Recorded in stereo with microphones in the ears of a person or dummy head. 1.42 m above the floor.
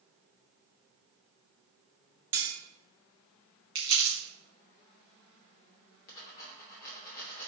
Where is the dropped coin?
50° left (ahead or behind), 1.1 m.